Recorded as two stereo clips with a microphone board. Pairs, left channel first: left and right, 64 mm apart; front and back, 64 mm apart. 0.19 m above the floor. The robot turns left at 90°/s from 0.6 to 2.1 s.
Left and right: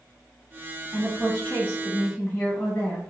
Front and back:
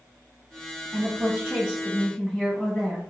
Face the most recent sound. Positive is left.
turn(degrees=75)